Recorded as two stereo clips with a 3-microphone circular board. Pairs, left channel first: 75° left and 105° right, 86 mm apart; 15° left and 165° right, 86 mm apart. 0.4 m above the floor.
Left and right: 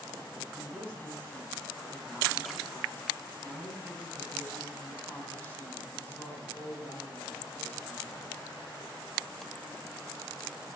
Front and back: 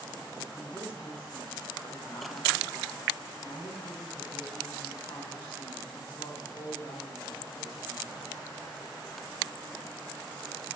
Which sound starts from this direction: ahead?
A woman speaking, at 0.6 s.